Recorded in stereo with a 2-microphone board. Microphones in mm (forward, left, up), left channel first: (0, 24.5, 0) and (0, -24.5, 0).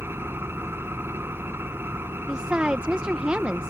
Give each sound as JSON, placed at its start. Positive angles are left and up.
{"t": 0.0, "sound": "an engine running", "side_deg": -55}
{"t": 2.3, "sound": "a woman speaking", "side_deg": -20}